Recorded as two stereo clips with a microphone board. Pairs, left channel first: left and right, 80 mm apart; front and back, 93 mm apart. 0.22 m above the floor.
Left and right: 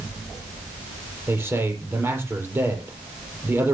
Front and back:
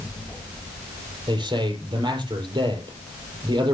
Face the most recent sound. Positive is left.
turn(degrees=-150)